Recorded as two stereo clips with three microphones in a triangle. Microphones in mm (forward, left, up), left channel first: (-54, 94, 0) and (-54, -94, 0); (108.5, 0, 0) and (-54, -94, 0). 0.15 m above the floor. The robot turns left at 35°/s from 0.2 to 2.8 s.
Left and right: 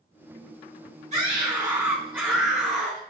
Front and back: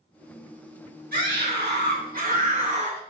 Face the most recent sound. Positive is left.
turn(degrees=170)